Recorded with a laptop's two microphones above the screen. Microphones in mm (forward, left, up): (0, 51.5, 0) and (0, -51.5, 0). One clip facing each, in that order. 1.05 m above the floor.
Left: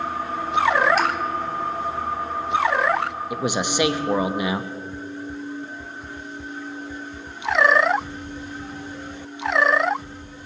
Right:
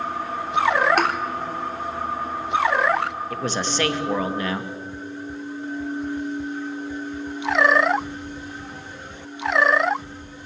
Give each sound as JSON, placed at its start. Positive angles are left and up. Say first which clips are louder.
{"t": 1.0, "sound": "a thud", "louder": "right 1 dB", "side_deg": -65, "distance_m": 1.5}
{"t": 3.3, "sound": "a man speaking", "louder": "left 2 dB", "side_deg": 15, "distance_m": 1.0}